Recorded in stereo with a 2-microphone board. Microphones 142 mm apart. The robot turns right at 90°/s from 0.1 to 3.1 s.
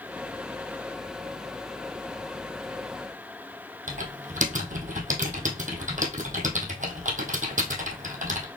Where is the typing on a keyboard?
65° right (ahead or behind), 1.4 m.